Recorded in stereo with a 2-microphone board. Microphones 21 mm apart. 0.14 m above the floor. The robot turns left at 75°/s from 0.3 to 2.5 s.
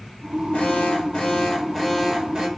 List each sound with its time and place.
0.5 s an alarm: 90° left, 4.5 m; by 2.5 s 55° right, 4.5 m